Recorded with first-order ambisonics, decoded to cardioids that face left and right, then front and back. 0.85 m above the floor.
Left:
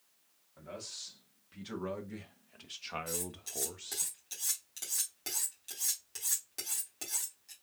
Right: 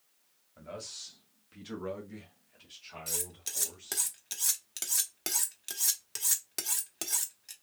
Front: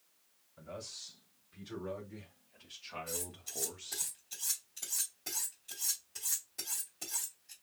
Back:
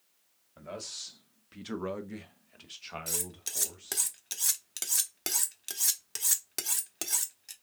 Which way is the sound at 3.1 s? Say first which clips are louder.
Right 2 dB, back 5 dB; 150° right.